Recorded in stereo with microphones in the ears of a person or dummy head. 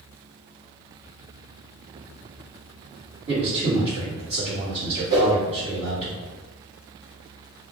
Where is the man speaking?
45° right (ahead or behind), 1.6 m.